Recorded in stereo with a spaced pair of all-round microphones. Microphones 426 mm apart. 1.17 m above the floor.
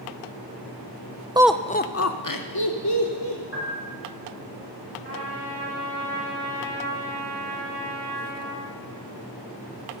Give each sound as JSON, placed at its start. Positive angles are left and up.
{"t": 1.4, "sound": "laughter", "side_deg": -10, "distance_m": 0.5}
{"t": 3.5, "sound": "a piano", "side_deg": 30, "distance_m": 4.5}
{"t": 5.0, "sound": "a trumpet", "side_deg": -65, "distance_m": 5.0}